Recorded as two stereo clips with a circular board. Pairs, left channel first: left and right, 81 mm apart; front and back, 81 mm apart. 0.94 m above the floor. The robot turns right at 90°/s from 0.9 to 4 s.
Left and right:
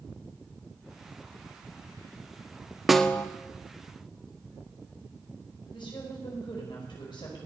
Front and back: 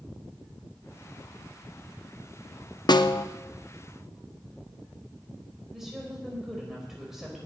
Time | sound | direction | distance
2.9 | a snare drum | 5° right | 0.6 m
5.7 | a woman speaking | 95° left | 4.5 m